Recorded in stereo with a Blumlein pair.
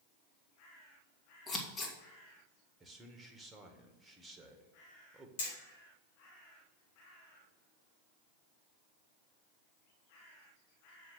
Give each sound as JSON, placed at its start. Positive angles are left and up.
{"t": 1.5, "sound": "scissors", "azimuth_deg": 20, "distance_m": 1.7}
{"t": 2.8, "sound": "a man speaking", "azimuth_deg": -10, "distance_m": 1.5}
{"t": 5.4, "sound": "hammering", "azimuth_deg": 55, "distance_m": 4.5}